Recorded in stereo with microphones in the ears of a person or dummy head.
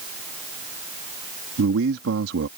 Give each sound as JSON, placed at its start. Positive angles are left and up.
{"t": 1.6, "sound": "a man speaking", "side_deg": -80}